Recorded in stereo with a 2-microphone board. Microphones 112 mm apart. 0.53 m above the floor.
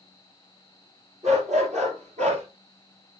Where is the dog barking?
75° right (ahead or behind), 4.5 m; by 2.4 s 80° right, 3.5 m.